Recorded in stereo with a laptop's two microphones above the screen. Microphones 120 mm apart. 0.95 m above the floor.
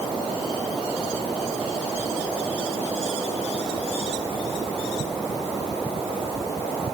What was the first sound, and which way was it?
Only background noise.